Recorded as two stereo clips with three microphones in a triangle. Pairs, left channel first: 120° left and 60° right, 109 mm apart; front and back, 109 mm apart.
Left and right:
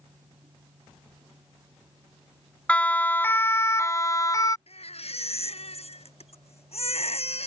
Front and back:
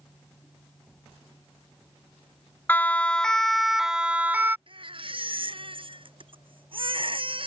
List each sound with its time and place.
2.7 s a siren: 55° left; by 4.6 s 125° left
4.7 s a baby crying: 140° left